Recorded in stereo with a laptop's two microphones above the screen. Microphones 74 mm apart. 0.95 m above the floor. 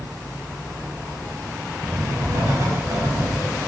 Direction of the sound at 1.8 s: 50° right (ahead or behind).